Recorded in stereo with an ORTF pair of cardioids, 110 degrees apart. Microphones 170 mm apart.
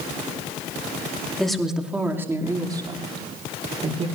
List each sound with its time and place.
1.4 s a woman speaking: 5° left, 2.5 m; by 4.1 s 40° right, 4 m